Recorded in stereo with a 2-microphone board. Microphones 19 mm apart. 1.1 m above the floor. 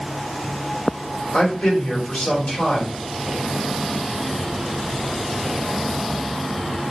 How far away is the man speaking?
About 1.3 m.